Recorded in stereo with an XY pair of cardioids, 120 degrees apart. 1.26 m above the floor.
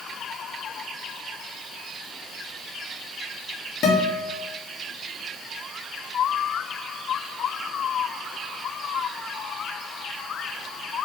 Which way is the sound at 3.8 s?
65° left.